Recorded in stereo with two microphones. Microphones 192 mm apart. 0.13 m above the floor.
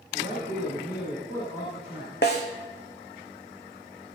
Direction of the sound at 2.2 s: 60° left (ahead or behind).